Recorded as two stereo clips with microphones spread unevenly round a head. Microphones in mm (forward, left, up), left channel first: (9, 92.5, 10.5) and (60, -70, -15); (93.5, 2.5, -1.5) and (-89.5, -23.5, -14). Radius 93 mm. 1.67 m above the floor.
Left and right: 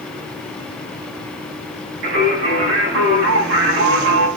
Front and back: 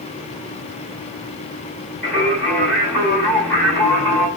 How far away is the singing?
About 5.5 m.